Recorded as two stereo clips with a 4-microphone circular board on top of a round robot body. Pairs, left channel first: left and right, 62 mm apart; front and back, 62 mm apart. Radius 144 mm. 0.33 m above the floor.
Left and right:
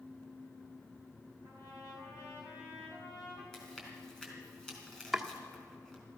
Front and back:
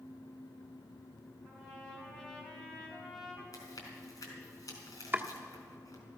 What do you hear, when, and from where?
1.4 s a trumpet: 80° left, 4.5 m
3.5 s chewing: 15° left, 3.5 m
5.1 s chopping: straight behind, 1.4 m